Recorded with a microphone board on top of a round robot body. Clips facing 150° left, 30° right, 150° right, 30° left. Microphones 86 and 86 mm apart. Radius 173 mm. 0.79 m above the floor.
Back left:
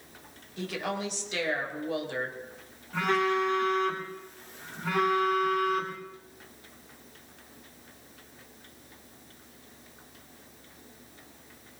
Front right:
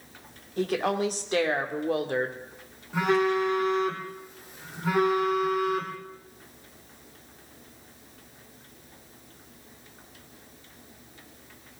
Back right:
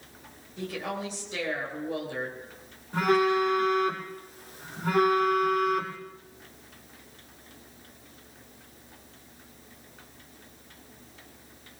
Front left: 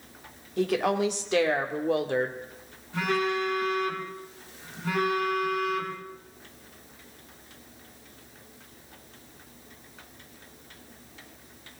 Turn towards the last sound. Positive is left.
turn(degrees=-105)